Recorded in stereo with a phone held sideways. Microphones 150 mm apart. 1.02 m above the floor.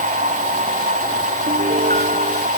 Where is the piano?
65° right (ahead or behind).